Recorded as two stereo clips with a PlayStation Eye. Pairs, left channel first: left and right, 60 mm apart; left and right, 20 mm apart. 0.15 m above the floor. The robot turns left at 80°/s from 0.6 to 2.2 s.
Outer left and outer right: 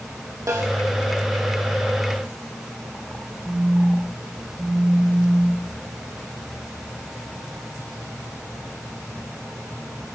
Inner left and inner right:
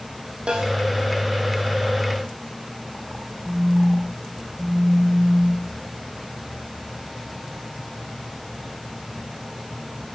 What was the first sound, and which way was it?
A snare drum, 60° right (ahead or behind).